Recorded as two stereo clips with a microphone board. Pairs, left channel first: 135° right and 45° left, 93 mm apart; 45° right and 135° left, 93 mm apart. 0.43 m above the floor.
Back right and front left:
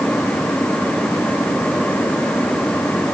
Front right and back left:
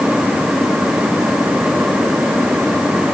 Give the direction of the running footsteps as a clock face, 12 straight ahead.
I don't hear running footsteps.